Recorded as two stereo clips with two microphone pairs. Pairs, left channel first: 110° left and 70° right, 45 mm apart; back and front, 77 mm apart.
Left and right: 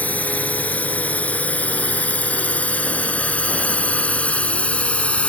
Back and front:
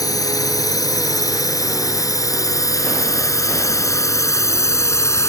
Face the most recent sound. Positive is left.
turn(degrees=155)